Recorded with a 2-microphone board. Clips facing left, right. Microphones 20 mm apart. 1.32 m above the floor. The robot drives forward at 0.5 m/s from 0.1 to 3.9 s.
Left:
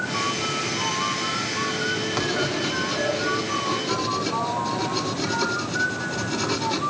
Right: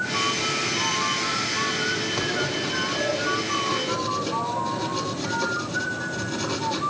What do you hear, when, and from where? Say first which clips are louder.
2.1 s writing: left 1 dB; 65° left (ahead or behind), 3 m; by 6.8 s 55° left (ahead or behind), 3.5 m